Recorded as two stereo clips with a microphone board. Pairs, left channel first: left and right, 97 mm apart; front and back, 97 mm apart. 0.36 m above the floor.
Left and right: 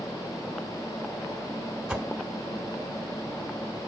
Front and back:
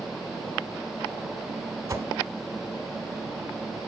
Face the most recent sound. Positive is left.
turn(degrees=-165)